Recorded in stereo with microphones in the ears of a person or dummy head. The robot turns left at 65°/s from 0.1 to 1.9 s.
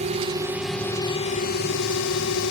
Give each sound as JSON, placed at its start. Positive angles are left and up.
{"t": 0.0, "sound": "a drone", "azimuth_deg": -140}